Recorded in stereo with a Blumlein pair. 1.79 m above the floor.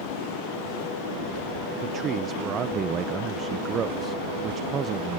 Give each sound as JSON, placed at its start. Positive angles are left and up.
{"t": 1.8, "sound": "a man speaking", "azimuth_deg": -25}